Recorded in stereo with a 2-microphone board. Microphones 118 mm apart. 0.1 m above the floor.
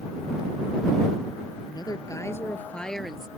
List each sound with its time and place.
1.6 s a woman speaking: 40° left (ahead or behind); by 3.3 s 5° right (ahead or behind)